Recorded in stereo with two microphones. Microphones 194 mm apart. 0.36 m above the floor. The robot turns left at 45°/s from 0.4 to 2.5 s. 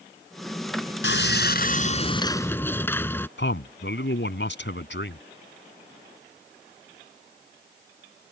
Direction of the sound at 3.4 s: 70° left (ahead or behind).